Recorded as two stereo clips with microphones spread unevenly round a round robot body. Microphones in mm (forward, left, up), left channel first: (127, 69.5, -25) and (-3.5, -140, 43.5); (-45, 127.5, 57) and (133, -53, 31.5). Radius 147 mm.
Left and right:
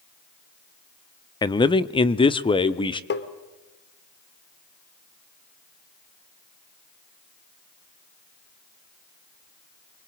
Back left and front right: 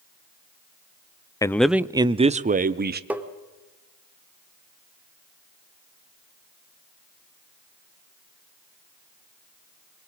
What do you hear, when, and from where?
1.4 s a man speaking: 60° left, 0.6 m; by 3.0 s 5° right, 1.2 m
3.1 s tapping: 35° left, 2 m